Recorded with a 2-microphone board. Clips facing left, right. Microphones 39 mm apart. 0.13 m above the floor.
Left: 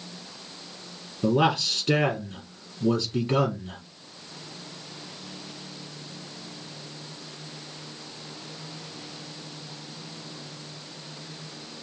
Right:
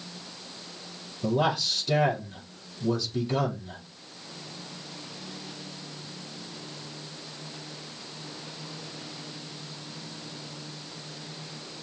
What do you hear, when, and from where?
1.2 s a man speaking: 50° left (ahead or behind), 3.5 m